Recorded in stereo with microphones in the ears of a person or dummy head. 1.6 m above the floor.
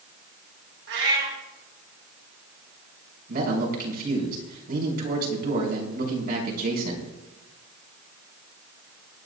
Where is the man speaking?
50° right (ahead or behind), 4.5 m.